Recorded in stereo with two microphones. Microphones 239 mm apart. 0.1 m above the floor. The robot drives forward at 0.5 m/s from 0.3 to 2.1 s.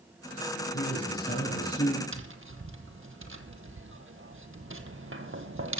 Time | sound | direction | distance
0.7 | a man speaking | 40° left (ahead or behind) | 5 m
2.1 | tapping | 55° right (ahead or behind) | 0.9 m